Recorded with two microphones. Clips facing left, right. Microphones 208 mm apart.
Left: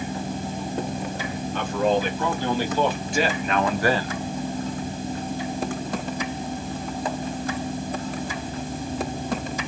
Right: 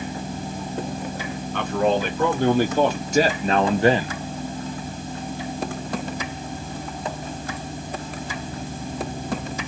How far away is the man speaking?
About 1.7 m.